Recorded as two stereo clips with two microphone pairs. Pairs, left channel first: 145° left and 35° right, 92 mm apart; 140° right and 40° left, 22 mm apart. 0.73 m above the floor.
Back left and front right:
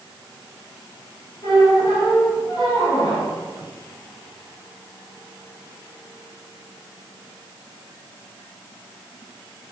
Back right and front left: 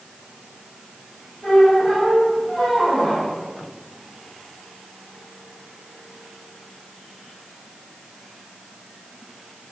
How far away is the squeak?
About 1.5 m.